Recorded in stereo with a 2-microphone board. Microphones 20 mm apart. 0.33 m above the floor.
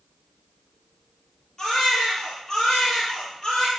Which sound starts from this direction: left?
A baby crying, at 1.6 s.